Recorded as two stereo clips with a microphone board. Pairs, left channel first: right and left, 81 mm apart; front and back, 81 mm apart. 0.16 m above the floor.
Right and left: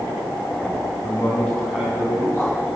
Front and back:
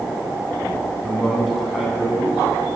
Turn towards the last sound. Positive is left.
turn(degrees=110)